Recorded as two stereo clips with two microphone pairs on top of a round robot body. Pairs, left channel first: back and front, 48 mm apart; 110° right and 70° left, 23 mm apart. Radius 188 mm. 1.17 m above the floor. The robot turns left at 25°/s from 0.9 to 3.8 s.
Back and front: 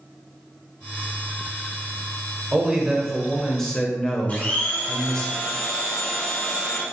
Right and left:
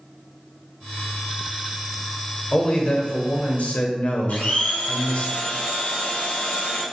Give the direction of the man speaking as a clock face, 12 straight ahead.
2 o'clock.